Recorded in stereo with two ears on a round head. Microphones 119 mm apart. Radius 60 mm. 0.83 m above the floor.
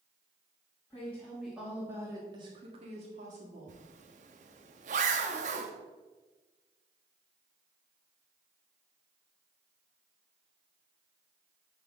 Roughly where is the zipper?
Right.